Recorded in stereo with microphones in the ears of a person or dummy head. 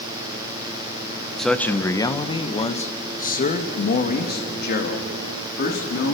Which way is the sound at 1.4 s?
Centre (ahead or behind).